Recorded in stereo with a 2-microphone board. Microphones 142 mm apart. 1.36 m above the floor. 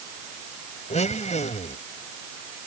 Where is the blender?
55° left (ahead or behind).